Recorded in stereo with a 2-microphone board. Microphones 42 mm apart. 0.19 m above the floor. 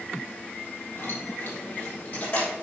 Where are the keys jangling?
50° left (ahead or behind), 4 m; by 2.5 s 40° left (ahead or behind), 4.5 m.